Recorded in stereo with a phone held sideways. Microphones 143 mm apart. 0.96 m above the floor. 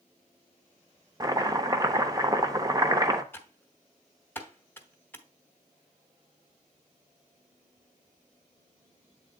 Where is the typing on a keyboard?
15° left (ahead or behind), 0.9 m.